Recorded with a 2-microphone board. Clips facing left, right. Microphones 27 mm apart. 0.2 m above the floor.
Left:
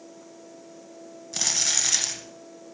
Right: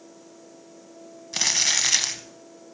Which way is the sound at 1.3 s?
30° right (ahead or behind).